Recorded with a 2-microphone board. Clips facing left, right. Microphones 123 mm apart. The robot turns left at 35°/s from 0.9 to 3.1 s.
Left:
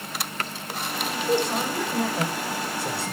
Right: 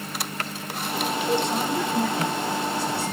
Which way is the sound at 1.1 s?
175° right.